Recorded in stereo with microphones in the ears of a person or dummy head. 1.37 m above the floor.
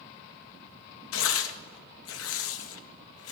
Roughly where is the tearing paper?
Left.